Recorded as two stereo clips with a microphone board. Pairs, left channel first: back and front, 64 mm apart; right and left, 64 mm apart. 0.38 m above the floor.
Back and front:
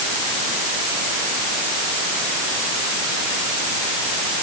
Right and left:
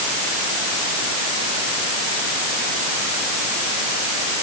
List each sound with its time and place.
Only background noise.